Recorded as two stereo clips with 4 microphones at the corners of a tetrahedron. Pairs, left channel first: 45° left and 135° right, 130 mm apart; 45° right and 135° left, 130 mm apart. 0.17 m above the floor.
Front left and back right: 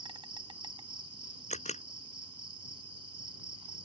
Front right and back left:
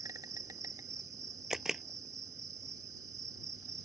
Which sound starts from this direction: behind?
An insect, at 0.0 s.